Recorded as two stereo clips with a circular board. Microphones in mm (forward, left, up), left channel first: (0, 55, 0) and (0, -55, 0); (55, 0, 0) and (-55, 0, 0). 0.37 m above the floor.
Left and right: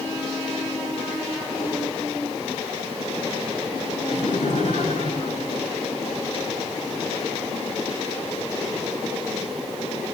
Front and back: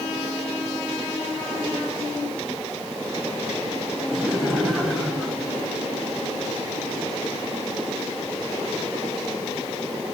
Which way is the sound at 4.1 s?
85° left.